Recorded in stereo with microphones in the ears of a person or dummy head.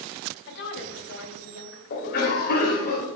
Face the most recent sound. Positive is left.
turn(degrees=60)  # may be behind; listen again after turning